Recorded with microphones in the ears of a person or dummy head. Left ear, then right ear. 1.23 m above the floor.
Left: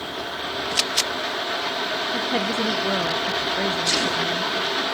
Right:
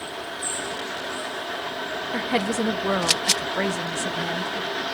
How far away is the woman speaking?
About 1.0 m.